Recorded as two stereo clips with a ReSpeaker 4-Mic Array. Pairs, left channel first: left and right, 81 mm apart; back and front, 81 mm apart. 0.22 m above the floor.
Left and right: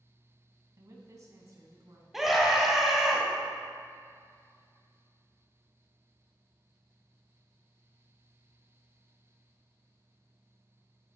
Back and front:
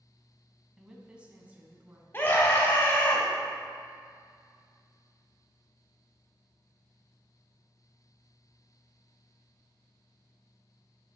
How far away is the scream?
About 1.0 m.